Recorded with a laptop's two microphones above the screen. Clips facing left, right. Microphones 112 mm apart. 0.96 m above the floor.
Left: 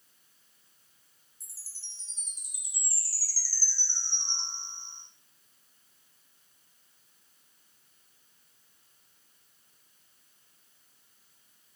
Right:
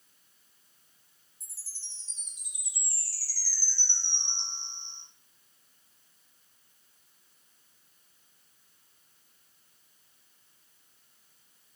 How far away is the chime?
About 0.6 m.